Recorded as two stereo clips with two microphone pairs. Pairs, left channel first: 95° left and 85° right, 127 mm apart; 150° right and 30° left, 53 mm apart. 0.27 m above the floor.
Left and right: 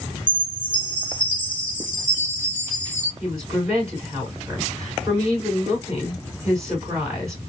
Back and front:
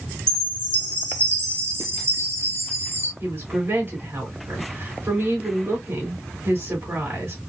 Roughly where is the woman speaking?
Ahead.